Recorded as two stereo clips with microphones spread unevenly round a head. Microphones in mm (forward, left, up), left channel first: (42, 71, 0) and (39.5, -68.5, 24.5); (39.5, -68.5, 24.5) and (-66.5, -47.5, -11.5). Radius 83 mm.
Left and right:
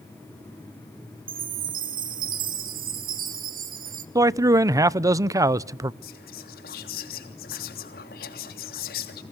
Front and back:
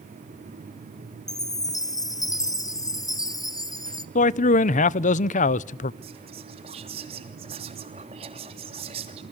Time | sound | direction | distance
1.3 | a chime | 70° right | 1.7 m
4.2 | a man speaking | 20° right | 0.6 m
6.0 | whispering | 120° left | 3 m